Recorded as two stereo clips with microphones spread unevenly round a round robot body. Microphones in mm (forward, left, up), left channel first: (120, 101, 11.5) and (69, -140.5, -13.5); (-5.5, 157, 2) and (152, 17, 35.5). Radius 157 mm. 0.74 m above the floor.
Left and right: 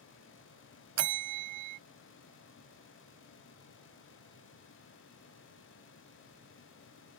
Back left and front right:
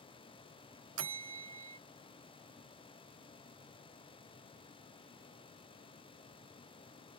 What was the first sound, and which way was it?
A bell, 80° right.